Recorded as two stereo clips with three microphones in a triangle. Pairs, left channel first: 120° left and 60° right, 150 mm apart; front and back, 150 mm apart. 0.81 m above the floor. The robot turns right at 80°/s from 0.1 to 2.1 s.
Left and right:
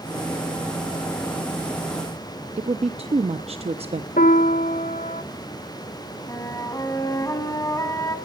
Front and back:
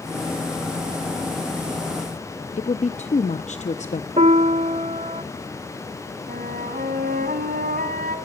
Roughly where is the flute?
Behind.